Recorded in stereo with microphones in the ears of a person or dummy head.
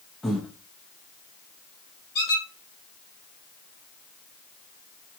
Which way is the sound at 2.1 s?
25° left (ahead or behind).